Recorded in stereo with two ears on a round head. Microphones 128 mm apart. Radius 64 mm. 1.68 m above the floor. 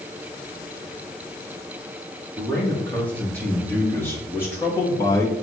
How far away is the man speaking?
About 5 m.